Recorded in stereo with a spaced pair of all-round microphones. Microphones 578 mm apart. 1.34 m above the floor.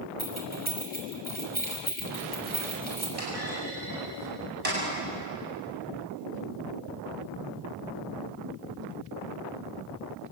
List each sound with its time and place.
0.2 s keys jangling: 15° left (ahead or behind), 6 m
3.2 s a clunk: 75° right (ahead or behind), 8 m